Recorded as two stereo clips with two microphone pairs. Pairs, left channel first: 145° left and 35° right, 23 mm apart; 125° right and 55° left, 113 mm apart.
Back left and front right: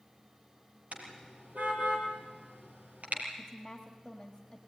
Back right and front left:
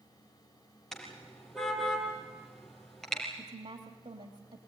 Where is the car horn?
40° right, 5 m.